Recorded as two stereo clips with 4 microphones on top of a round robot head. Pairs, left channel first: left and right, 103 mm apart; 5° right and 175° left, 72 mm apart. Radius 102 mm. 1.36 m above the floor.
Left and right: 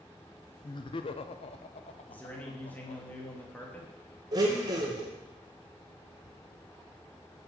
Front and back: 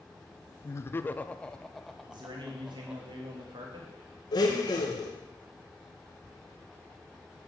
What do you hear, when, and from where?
0.6 s laughter: 40° left, 0.7 m; by 3.0 s 95° left, 1.5 m
2.1 s a man speaking: 165° left, 2 m
4.3 s a blender: 35° right, 1.5 m